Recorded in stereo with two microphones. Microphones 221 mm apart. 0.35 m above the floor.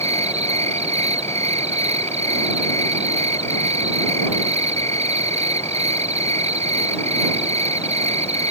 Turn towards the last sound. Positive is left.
turn(degrees=-30)  # may be behind; listen again after turning